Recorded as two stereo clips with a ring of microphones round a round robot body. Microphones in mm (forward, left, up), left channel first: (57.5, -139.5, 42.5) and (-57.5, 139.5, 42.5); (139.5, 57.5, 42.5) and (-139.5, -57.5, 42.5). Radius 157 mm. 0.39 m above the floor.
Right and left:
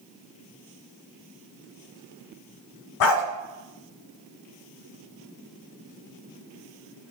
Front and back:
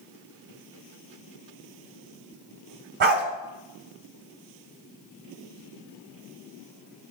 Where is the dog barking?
100° right, 0.9 m.